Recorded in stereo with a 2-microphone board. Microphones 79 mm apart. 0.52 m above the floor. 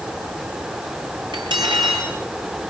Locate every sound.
1.3 s cutlery clinking: 75° right (ahead or behind), 5.5 m